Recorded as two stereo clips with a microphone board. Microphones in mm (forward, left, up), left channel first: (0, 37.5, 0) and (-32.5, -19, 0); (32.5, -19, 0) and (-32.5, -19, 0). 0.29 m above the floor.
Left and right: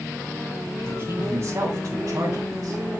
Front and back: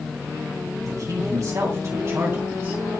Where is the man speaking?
165° right, 2.5 m; by 2.8 s 130° right, 2.5 m.